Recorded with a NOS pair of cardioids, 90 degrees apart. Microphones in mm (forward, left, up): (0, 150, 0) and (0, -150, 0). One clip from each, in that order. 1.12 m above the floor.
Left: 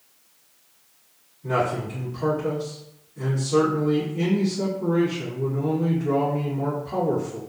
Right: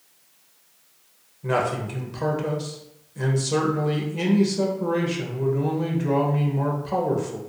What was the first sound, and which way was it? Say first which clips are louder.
A man speaking: even; 70° right.